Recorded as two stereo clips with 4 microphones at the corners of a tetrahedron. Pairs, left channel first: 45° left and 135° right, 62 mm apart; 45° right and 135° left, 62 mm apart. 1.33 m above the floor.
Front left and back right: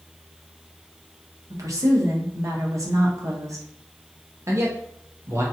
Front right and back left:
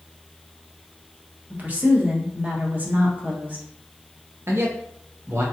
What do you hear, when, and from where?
1.5 s a woman speaking: 165° right, 0.9 m
4.5 s a man speaking: 175° right, 0.7 m